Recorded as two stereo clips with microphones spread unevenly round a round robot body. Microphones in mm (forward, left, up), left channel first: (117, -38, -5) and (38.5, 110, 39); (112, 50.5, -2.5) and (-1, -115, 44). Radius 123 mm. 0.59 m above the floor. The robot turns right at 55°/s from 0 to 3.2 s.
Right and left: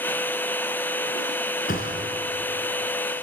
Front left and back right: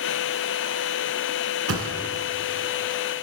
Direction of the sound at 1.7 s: 125° right.